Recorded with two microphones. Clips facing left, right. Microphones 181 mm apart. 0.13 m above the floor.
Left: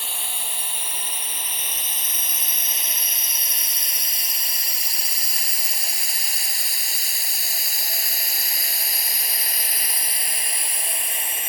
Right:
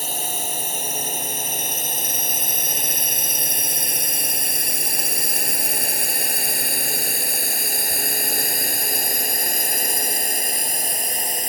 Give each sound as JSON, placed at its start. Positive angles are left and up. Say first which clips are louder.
{"t": 0.0, "sound": "a drone", "louder": "right 8 dB", "side_deg": -40}